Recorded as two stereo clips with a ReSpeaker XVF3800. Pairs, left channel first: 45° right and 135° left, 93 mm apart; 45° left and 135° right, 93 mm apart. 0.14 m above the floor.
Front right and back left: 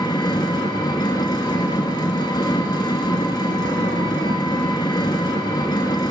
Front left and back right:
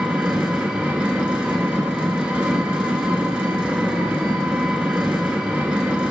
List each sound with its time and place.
0.0 s an engine running: 60° right, 0.7 m